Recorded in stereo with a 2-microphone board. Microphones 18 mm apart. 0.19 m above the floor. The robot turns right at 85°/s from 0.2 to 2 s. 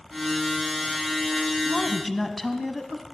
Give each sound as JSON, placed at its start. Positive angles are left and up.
{"t": 1.6, "sound": "a woman speaking", "side_deg": 20, "distance_m": 1.2}